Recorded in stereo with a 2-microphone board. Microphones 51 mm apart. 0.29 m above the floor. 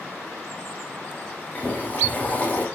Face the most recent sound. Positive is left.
turn(degrees=30)  # may be behind; listen again after turning